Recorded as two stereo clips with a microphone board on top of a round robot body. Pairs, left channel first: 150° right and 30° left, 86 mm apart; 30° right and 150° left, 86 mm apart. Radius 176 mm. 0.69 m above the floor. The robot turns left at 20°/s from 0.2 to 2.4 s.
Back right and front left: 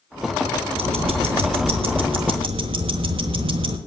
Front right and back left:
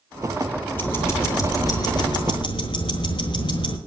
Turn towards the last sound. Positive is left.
turn(degrees=5)